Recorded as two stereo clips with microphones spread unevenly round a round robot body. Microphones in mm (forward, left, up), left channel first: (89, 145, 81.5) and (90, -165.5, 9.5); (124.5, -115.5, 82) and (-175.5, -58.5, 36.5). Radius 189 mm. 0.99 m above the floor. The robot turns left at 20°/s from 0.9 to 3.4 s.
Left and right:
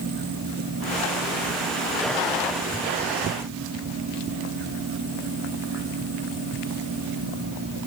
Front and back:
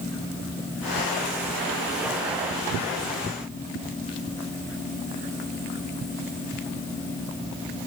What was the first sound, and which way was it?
Only background noise.